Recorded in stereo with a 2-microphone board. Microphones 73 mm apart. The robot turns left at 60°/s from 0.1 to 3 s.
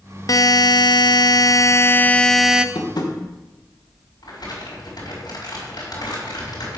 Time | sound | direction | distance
0.3 | a buzzer | 130° left | 0.5 m
2.8 | tapping | 75° left (ahead or behind) | 1.5 m
4.2 | crumpling | 65° left (ahead or behind) | 4.5 m